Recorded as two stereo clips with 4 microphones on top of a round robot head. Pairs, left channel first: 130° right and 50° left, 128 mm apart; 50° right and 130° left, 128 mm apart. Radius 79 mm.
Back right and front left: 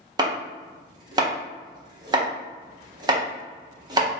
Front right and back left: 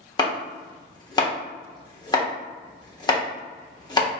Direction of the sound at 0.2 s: Straight ahead.